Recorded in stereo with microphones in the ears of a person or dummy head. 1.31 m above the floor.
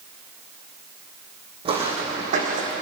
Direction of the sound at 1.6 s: 25° right (ahead or behind).